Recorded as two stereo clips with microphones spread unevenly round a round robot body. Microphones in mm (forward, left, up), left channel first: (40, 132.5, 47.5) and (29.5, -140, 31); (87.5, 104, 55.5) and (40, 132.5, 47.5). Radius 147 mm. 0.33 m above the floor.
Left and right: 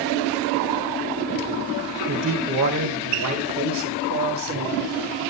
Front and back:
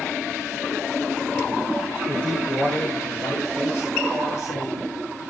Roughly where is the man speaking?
Right.